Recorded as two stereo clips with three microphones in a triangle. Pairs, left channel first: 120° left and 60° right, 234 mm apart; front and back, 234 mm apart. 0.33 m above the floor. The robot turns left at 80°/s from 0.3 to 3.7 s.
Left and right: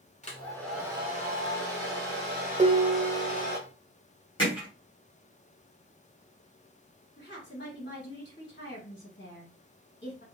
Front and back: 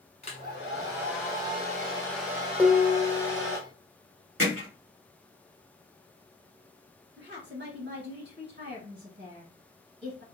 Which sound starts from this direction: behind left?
A woman speaking, at 7.2 s.